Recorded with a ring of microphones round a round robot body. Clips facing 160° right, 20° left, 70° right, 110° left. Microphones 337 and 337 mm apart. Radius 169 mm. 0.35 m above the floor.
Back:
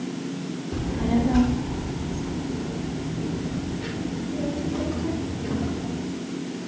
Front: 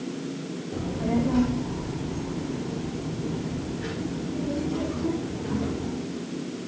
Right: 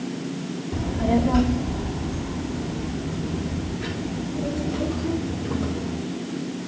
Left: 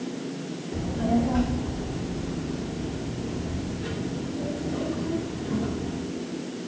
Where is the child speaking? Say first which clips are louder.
Back 2 dB, right 2 dB; 105° right, 1.1 m; by 6.0 s 55° right, 8 m.